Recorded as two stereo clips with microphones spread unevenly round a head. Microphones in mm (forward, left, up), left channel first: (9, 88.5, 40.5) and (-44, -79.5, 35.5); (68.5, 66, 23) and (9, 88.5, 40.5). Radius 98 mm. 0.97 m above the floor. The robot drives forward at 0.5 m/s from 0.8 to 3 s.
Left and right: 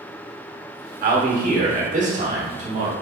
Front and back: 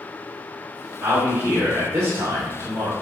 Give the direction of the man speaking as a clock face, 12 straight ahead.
4 o'clock.